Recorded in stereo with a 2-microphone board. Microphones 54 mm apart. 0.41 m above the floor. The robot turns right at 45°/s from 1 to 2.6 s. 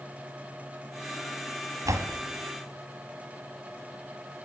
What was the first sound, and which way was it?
A door slam, 70° right (ahead or behind).